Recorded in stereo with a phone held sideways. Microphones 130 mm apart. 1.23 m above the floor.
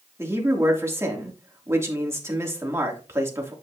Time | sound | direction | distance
0.2 | a man speaking | 20° right (ahead or behind) | 2.5 m